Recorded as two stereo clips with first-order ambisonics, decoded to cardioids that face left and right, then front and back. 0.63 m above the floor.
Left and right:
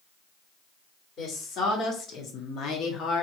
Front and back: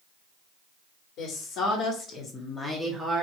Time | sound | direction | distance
1.2 | a woman speaking | 35° left | 1.5 m